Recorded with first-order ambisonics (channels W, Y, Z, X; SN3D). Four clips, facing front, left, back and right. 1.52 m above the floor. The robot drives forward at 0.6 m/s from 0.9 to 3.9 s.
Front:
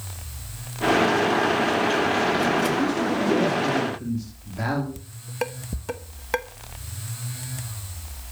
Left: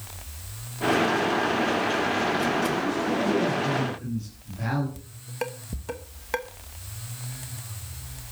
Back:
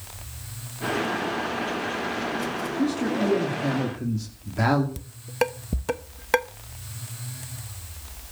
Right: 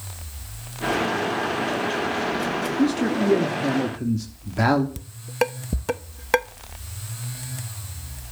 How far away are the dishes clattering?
About 0.9 m.